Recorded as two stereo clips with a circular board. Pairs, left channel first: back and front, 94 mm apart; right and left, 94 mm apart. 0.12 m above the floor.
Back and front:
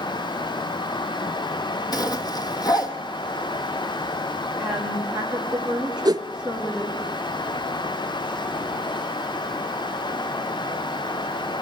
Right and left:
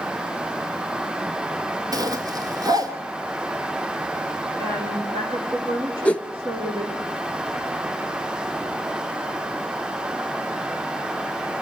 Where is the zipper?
135° left, 1.4 m.